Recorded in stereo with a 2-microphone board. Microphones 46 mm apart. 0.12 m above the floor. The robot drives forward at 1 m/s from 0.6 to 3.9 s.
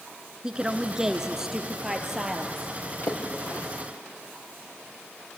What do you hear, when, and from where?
0.4 s a woman speaking: 20° right (ahead or behind), 1.2 m; by 2.7 s 10° right (ahead or behind), 3 m
3.0 s a splash: 50° left (ahead or behind), 4.5 m; by 3.7 s 55° left (ahead or behind), 4 m